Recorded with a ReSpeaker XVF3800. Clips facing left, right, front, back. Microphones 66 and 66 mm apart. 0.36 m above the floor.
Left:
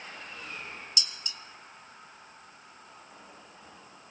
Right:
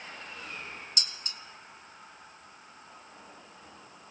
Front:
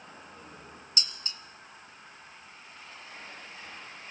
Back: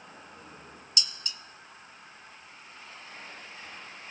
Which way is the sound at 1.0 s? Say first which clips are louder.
Even, back 1 dB; 50° right.